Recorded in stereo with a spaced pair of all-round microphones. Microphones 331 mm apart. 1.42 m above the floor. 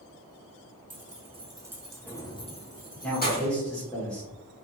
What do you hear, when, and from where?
0.9 s keys jangling: 25° right (ahead or behind), 0.9 m; by 3.5 s 30° left (ahead or behind), 1.2 m
3.0 s a man speaking: 5° left (ahead or behind), 1.4 m